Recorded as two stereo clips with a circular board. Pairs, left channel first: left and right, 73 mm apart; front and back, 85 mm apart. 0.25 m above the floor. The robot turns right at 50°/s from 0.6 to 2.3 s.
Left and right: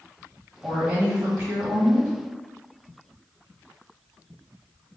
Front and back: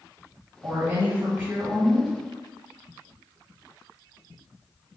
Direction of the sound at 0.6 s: 165° right.